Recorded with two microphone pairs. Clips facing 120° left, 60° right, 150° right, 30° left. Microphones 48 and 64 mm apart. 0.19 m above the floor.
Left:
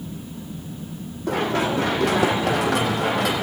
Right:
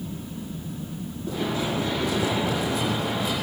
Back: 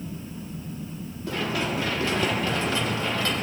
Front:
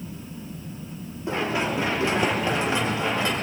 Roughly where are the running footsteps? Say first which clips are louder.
Left 5 dB, front 2 dB; left.